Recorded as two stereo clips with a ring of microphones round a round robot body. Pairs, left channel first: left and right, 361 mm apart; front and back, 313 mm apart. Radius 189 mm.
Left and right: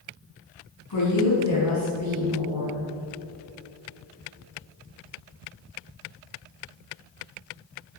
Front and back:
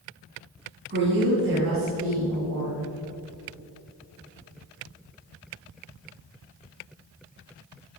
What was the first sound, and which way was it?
A woman speaking, 130° left.